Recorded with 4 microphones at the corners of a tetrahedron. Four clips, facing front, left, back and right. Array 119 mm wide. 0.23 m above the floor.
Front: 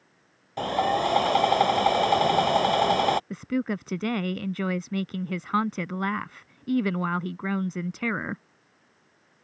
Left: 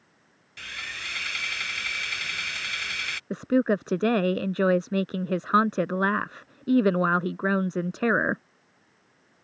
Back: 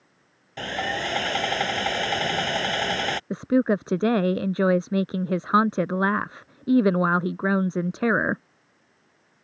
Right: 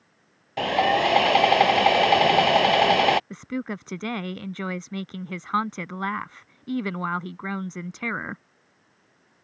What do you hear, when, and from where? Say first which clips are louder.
0.6 s sawing: right 19 dB, front 5 dB; 75° right
3.3 s a woman speaking: left 8 dB, back 7 dB; 145° left